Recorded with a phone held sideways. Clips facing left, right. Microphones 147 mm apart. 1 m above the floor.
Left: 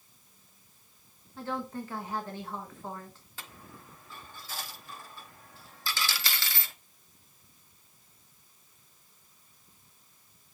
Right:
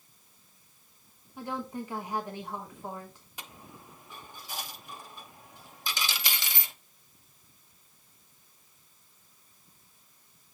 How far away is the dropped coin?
About 0.7 m.